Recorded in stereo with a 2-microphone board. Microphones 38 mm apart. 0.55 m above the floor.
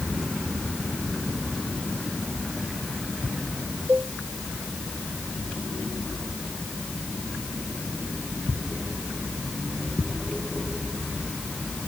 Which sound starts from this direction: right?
A cowbell, at 3.9 s.